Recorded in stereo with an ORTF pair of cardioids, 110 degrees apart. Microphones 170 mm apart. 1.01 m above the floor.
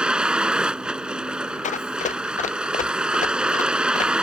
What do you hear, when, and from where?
0.0 s a vehicle: 5° right
1.6 s running footsteps: 45° left